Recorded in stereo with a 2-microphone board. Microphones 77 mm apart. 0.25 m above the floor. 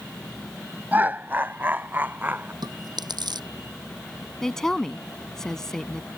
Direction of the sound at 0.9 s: 25° right (ahead or behind).